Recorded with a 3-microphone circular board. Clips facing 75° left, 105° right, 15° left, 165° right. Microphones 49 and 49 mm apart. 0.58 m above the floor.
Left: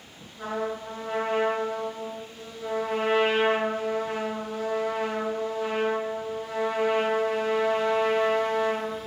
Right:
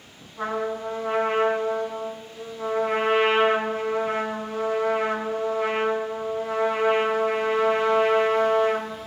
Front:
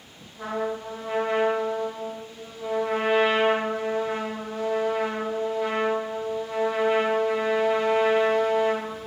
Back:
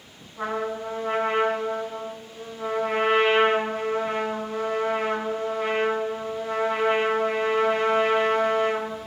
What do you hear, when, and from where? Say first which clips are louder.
0.4 s a trumpet: right 3 dB, back 1 dB; 130° right, 5 m